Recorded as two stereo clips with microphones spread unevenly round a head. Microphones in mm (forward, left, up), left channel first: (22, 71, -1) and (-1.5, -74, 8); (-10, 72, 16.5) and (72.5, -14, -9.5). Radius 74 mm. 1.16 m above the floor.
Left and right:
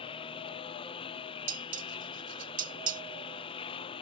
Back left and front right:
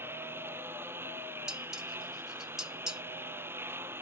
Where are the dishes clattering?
135° right.